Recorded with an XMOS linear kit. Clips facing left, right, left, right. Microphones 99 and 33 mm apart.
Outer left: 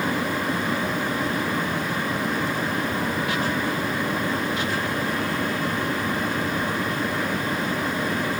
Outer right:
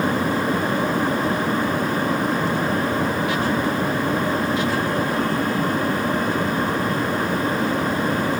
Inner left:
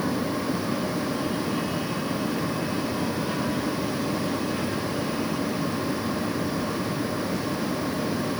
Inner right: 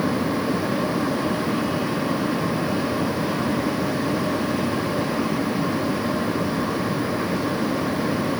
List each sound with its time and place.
Only background noise.